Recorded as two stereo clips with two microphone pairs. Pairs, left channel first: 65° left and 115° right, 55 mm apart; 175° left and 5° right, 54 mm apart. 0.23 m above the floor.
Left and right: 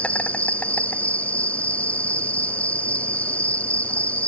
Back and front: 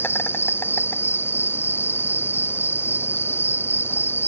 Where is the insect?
130° left.